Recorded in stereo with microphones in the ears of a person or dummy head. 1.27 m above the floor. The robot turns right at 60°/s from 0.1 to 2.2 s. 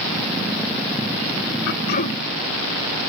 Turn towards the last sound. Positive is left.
turn(degrees=145)